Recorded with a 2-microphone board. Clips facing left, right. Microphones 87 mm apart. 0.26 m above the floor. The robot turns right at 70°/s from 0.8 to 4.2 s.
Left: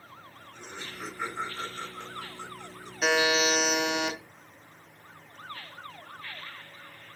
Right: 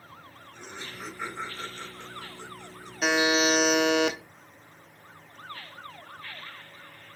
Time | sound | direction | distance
0.5 | laughter | 5° right (ahead or behind) | 2.5 m
3.0 | a buzzer | 175° right | 0.7 m